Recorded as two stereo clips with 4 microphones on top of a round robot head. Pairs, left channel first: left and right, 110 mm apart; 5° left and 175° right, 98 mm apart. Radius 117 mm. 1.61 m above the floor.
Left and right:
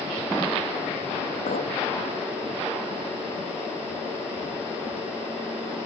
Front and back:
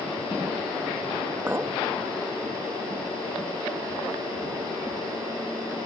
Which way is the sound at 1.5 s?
115° left.